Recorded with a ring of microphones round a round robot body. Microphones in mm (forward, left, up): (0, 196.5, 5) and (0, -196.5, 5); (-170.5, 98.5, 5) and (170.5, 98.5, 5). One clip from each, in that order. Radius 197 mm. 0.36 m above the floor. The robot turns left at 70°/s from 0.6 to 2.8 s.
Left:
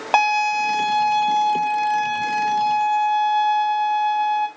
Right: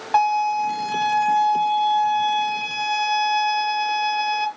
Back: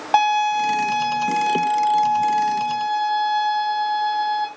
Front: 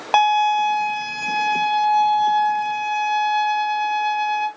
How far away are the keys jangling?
I don't hear keys jangling.